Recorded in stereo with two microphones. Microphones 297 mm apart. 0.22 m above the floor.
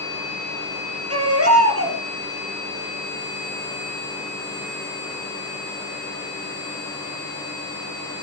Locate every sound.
1.1 s a baby crying: 50° right (ahead or behind), 3.5 m